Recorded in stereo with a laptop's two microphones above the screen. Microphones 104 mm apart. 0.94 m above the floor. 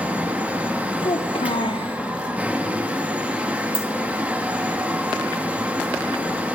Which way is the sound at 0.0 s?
15° right (ahead or behind).